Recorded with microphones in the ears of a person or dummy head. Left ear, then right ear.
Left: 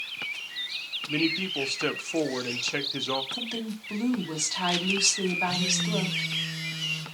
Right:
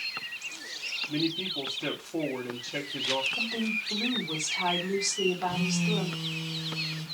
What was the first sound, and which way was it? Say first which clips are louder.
A man speaking: left 6 dB; 65° left (ahead or behind).